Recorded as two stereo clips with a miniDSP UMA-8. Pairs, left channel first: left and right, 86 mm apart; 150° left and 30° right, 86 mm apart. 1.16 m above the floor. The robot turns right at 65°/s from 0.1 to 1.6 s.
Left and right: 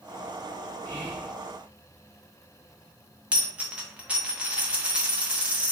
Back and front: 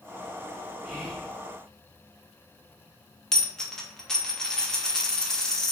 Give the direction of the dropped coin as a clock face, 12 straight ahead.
5 o'clock.